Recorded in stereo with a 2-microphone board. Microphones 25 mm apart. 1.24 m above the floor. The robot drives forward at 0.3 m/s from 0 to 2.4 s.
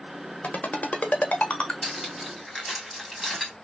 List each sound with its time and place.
0.4 s a ringtone: 80° left, 0.8 m; by 1.7 s 60° left (ahead or behind), 0.9 m
1.8 s cutlery clinking: centre (ahead or behind), 1.6 m